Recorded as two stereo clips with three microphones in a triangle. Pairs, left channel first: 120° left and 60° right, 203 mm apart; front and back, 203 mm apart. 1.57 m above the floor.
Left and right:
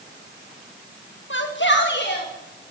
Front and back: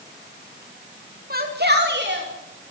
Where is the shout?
140° left, 2.5 m; by 2.7 s 155° left, 4 m.